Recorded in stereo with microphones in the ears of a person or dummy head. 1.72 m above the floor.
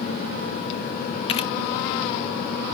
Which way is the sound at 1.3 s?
35° left (ahead or behind).